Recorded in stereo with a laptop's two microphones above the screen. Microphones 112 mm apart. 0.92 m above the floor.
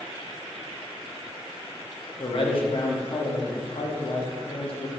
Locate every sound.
2.2 s a man speaking: 55° left (ahead or behind), 1.2 m